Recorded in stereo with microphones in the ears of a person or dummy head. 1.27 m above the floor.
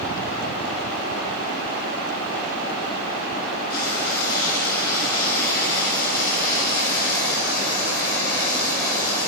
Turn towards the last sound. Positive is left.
turn(degrees=55)  # may be behind; listen again after turning